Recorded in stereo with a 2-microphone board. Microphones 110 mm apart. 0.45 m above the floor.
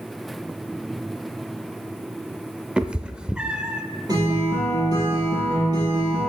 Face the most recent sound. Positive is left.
turn(degrees=-35)  # may be behind; listen again after turning